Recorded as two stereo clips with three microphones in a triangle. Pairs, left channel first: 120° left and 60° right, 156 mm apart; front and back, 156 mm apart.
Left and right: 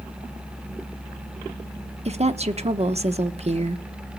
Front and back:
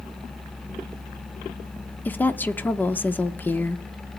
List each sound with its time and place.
2.0 s a woman speaking: 75° right, 1.0 m